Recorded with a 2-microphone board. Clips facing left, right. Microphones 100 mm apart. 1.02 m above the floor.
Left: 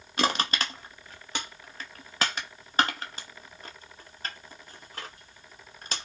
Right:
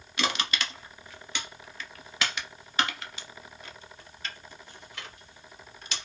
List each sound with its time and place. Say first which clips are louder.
0.2 s crushing: left 3 dB; 40° left (ahead or behind), 0.7 m